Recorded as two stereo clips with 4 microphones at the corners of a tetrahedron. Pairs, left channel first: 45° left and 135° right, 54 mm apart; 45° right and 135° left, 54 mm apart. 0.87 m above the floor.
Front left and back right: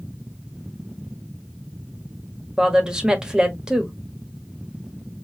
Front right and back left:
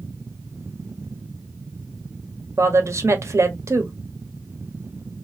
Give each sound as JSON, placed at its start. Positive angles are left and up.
{"t": 2.6, "sound": "a woman speaking", "azimuth_deg": 150, "distance_m": 1.3}